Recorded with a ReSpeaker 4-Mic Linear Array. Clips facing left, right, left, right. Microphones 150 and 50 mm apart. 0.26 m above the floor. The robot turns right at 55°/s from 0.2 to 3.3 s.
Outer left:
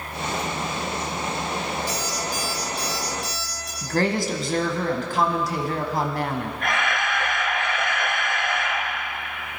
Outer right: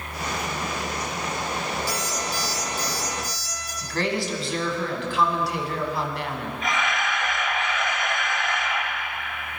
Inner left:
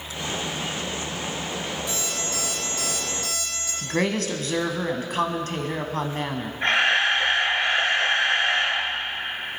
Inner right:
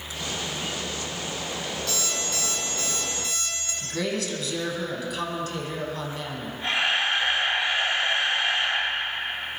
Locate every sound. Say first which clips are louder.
1.9 s an alarm clock: outer left 1 dB, inner left 1 dB; 20° left (ahead or behind), 5 m; by 3.7 s 80° left, 5 m
3.8 s a woman speaking: outer left 3 dB, inner left 4 dB; 45° left (ahead or behind), 1.5 m
6.6 s a camera shutter: outer right 1 dB, inner left 4 dB; 60° left (ahead or behind), 2.5 m